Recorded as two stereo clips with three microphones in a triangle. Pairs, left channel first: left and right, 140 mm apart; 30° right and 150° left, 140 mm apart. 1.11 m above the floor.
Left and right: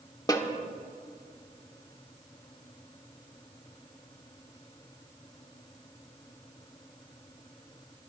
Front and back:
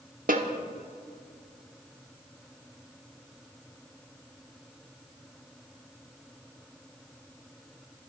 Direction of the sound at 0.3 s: 150° left.